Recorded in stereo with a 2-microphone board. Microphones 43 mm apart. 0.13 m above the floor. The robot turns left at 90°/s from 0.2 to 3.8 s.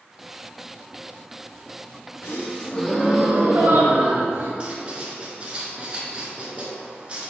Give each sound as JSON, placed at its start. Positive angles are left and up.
{"t": 2.2, "sound": "a gasp", "azimuth_deg": 70, "distance_m": 2.5}
{"t": 4.6, "sound": "writing", "side_deg": -25, "distance_m": 1.7}